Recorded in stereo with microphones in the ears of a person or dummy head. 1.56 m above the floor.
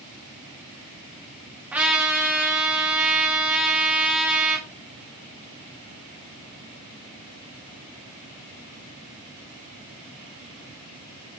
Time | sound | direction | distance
1.7 | a trumpet | 10° right (ahead or behind) | 2.5 m